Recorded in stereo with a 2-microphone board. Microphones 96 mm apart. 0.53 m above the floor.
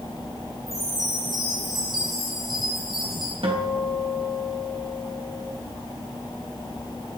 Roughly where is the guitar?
Right.